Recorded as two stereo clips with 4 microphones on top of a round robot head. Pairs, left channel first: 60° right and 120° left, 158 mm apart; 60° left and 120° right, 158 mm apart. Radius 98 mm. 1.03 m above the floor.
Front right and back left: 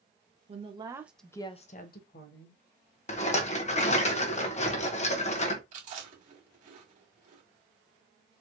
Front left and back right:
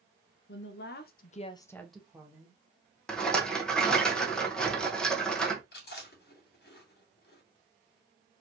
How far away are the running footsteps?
No running footsteps in this recording.